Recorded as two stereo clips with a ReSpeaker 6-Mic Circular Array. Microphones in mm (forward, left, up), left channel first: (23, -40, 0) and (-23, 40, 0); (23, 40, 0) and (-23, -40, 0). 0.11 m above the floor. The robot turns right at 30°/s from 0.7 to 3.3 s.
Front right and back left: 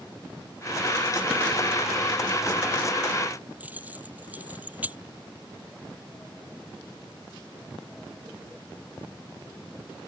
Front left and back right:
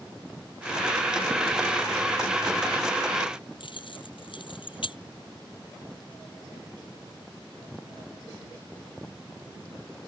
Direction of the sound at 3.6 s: 50° left.